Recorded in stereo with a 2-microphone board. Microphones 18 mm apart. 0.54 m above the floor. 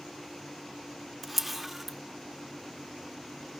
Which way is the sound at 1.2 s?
5° right (ahead or behind).